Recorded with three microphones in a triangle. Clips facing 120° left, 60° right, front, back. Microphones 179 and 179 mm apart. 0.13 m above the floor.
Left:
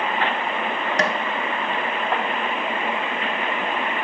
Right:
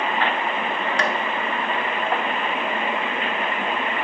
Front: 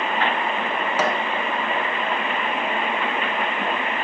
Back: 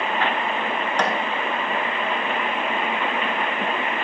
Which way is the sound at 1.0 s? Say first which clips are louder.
Left 2 dB, front 1 dB; 80° left.